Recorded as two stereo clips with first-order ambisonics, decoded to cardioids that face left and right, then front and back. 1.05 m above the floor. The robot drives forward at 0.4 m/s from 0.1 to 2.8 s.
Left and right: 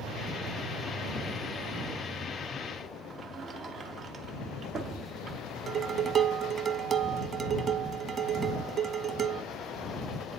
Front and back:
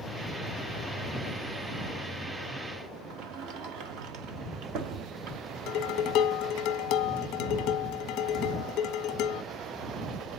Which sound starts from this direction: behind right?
A sliding door, at 3.1 s.